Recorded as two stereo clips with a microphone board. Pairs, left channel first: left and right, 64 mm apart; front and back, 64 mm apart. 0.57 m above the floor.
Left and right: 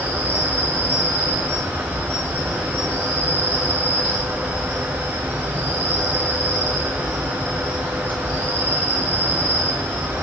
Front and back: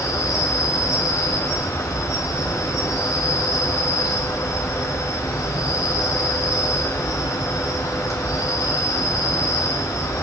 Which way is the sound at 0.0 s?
30° right.